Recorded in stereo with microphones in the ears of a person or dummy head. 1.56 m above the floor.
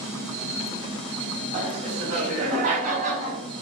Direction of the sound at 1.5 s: 40° right (ahead or behind).